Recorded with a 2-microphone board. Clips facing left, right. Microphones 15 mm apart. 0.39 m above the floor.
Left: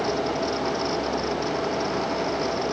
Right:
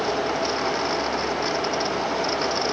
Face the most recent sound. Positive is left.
No sound to turn to.